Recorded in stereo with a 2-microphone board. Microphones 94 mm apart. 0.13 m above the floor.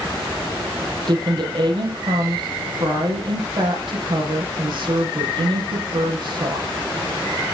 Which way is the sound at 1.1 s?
50° right (ahead or behind).